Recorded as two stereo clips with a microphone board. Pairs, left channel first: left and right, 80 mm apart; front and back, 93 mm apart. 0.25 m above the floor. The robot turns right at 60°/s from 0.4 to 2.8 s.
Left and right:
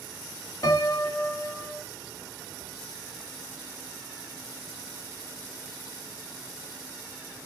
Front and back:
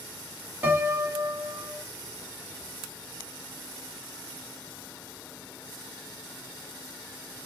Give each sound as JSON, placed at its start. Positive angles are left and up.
{"t": 0.6, "sound": "a piano", "azimuth_deg": 115, "distance_m": 1.1}